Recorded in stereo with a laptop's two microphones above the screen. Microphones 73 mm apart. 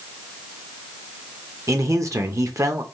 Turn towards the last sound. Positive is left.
turn(degrees=-45)  # may be behind; listen again after turning